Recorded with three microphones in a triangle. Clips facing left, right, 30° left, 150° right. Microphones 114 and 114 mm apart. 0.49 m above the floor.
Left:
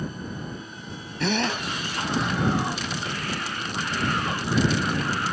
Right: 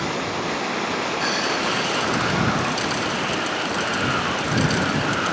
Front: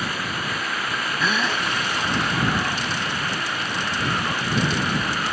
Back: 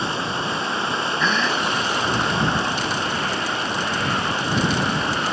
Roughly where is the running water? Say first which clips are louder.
Right 9 dB, back 3 dB; right.